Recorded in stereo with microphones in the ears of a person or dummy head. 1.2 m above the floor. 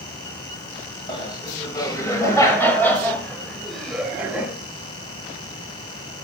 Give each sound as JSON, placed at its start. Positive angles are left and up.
{"t": 1.1, "sound": "laughter", "side_deg": 25, "distance_m": 7.0}